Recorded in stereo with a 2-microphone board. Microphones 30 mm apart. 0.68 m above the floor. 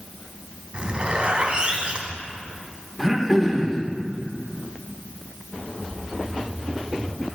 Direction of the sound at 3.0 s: 5° right (ahead or behind).